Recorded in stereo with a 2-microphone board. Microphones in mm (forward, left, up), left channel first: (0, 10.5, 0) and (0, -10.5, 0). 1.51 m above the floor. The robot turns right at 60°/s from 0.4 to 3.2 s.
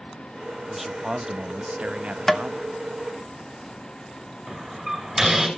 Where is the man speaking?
175° right, 1.1 m; by 2.7 s 55° right, 1.1 m.